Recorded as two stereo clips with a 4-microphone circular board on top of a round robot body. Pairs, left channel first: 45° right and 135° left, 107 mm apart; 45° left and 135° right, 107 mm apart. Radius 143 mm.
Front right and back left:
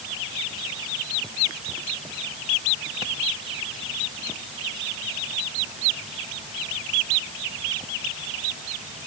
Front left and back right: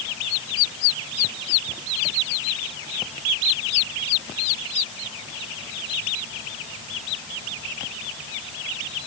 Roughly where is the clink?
No clink in this recording.